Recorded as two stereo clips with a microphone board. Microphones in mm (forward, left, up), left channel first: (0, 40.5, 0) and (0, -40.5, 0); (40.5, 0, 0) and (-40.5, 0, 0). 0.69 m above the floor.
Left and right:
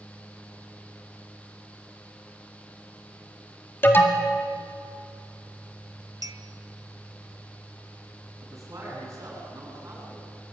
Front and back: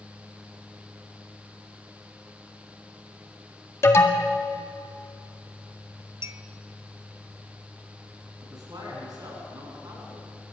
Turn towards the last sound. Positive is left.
turn(degrees=-140)